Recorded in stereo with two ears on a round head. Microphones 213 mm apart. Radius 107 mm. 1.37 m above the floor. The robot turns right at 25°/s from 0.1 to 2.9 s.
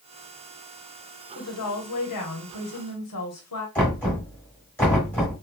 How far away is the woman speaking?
About 1.1 m.